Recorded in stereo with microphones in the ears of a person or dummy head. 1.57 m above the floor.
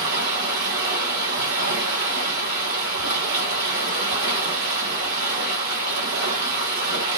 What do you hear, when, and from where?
0.0 s running water: 55° right (ahead or behind), 2 m